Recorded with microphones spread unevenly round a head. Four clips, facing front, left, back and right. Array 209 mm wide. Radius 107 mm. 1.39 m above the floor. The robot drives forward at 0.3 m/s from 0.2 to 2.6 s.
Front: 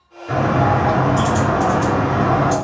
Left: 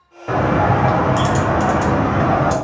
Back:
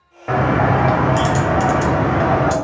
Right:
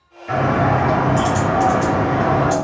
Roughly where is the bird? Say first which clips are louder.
Left 1 dB, back 1 dB; behind left.